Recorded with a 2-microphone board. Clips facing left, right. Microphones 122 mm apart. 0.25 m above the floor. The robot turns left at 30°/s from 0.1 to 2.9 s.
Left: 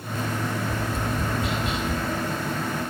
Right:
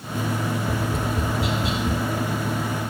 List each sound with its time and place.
0.7 s tapping: 50° right (ahead or behind), 4 m; by 2.0 s 80° right, 4 m